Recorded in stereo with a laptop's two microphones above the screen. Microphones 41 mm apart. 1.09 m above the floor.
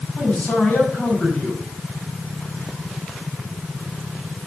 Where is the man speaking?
35° left (ahead or behind), 5 m.